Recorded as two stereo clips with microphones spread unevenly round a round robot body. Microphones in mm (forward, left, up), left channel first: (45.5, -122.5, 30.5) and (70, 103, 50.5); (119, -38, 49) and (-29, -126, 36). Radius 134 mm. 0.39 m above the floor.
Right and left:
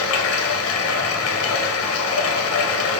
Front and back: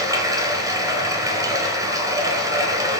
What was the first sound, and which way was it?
Running water, 75° right.